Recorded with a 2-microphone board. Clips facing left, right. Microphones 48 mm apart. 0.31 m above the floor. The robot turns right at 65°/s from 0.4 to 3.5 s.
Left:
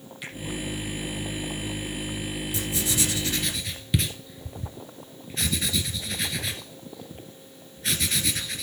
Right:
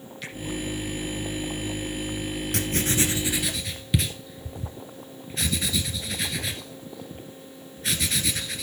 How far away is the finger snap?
About 8 m.